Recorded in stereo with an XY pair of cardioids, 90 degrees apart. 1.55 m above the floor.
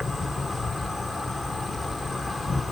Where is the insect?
30° left, 1.2 m.